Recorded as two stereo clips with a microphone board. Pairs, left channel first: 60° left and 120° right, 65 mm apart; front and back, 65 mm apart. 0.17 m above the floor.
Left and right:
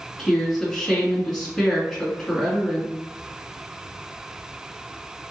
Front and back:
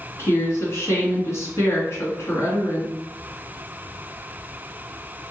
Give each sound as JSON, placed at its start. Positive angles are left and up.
{"t": 0.2, "sound": "a woman speaking", "azimuth_deg": -20, "distance_m": 1.7}